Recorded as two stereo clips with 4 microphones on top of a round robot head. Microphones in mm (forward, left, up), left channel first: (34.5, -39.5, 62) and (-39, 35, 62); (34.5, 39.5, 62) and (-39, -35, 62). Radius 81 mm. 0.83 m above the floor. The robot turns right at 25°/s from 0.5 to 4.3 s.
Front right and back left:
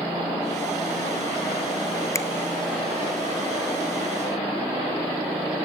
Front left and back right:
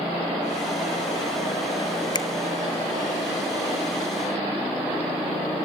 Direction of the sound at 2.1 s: 5° left.